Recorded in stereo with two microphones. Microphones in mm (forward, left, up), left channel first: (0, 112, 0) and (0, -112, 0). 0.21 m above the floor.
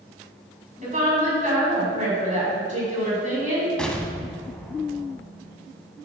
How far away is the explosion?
About 0.6 m.